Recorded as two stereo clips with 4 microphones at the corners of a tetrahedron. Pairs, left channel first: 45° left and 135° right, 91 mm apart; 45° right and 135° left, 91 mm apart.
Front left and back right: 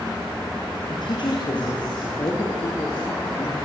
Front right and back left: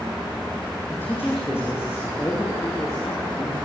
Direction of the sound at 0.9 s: 20° left.